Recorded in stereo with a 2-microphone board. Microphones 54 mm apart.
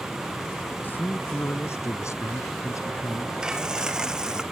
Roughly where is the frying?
Centre.